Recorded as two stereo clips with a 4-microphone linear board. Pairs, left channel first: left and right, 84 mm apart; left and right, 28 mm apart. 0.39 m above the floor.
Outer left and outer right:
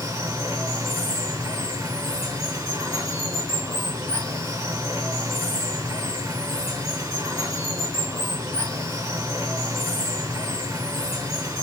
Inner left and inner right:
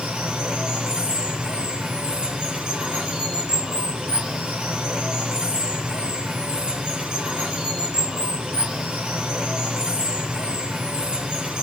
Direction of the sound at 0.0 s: 35° right (ahead or behind).